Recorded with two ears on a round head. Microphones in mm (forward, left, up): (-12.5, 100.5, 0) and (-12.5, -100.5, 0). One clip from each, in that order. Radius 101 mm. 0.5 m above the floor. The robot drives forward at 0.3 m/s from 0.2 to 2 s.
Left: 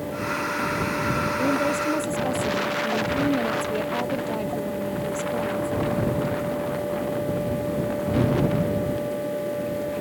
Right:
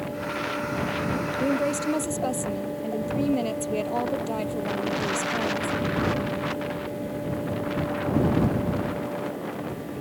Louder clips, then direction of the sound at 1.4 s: Left 1 dB; 30° right (ahead or behind).